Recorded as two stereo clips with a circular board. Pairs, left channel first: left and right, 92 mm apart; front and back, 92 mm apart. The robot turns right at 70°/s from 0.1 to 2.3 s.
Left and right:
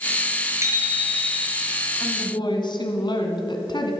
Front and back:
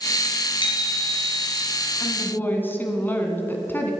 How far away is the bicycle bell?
About 3.5 m.